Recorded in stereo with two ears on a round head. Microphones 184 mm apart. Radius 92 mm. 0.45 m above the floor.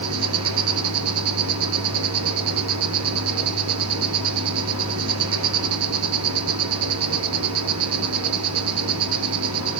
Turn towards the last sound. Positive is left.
turn(degrees=-85)